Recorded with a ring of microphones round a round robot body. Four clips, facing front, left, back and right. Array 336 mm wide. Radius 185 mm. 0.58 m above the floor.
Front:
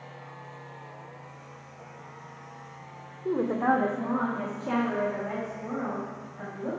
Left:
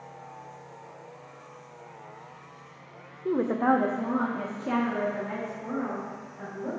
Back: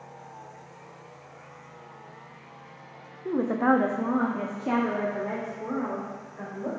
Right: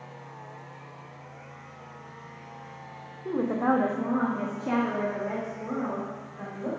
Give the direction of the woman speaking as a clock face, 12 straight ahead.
9 o'clock.